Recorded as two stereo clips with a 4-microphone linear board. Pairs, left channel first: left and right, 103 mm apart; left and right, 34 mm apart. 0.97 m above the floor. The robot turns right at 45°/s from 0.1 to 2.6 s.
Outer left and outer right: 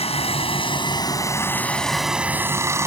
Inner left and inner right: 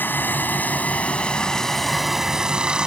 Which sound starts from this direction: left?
Running water, at 0.0 s.